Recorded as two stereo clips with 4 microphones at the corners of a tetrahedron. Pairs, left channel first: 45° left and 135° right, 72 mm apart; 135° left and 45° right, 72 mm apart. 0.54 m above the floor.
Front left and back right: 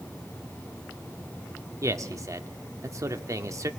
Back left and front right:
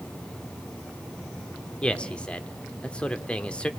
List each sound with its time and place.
1.8 s a man speaking: 155° right, 1.3 m